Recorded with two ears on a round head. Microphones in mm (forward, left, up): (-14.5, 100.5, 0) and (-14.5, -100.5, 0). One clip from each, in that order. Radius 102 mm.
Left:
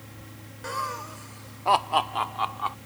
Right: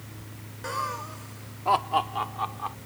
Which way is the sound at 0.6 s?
5° left (ahead or behind).